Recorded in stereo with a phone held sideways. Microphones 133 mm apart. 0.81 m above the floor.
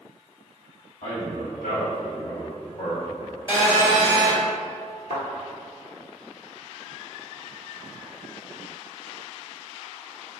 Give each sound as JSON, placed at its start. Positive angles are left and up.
{"t": 1.0, "sound": "a man speaking", "side_deg": 75, "distance_m": 1.8}
{"t": 3.5, "sound": "a phone buzzing", "side_deg": 45, "distance_m": 1.2}
{"t": 5.1, "sound": "a thud", "side_deg": 60, "distance_m": 1.3}